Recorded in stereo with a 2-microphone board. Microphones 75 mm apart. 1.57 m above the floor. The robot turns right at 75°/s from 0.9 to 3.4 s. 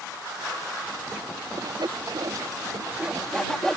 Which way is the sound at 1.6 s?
50° right (ahead or behind).